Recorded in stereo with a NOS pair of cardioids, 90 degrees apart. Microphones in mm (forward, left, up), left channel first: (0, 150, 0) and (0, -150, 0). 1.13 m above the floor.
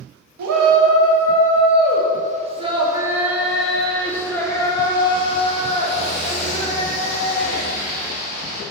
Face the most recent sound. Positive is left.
turn(degrees=30)